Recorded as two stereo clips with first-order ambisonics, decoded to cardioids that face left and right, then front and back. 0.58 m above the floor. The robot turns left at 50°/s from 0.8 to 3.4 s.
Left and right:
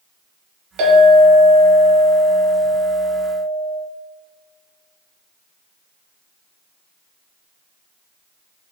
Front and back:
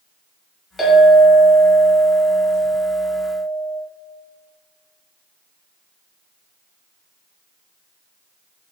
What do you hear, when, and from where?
0.8 s a clink: 70° right, 1.1 m; by 3.8 s 160° left, 1.1 m